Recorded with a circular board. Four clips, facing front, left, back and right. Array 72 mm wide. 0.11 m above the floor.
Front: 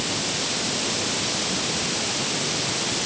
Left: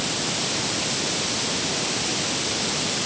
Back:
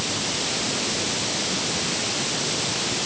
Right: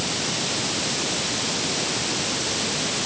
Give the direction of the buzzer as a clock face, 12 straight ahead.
No buzzer in this recording.